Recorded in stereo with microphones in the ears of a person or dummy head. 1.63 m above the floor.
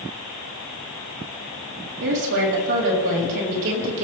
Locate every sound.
2.0 s a woman speaking: 60° right (ahead or behind), 4 m